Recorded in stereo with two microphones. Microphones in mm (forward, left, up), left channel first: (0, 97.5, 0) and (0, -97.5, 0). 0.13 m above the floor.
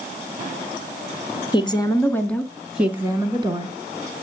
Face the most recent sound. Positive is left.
turn(degrees=-30)  # may be behind; listen again after turning